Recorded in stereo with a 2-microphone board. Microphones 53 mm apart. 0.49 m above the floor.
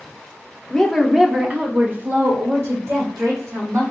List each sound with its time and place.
0.7 s a woman speaking: 10° left (ahead or behind), 0.9 m; by 3.8 s 70° right (ahead or behind), 2 m